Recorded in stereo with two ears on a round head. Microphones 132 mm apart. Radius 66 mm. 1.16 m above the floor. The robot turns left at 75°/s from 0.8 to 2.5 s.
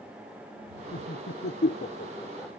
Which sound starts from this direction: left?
Laughter, at 0.9 s.